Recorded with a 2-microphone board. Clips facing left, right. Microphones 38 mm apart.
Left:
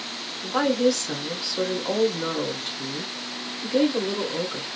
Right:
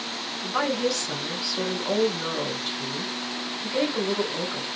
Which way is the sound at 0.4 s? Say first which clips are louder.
Left 4 dB; 5° left (ahead or behind).